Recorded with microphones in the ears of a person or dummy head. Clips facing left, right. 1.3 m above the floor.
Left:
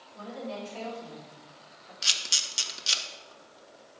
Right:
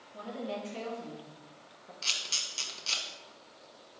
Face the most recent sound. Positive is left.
turn(degrees=15)  # may be behind; listen again after turning